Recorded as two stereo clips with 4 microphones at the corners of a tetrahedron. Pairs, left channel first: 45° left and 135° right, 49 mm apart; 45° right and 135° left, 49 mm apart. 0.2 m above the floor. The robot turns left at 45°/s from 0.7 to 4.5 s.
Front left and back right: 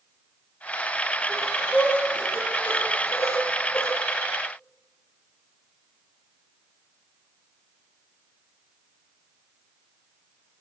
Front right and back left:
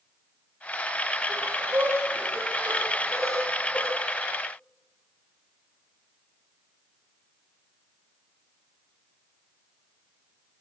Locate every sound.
1.3 s breathing: 125° left, 6.5 m; by 3.9 s 10° left, 6.5 m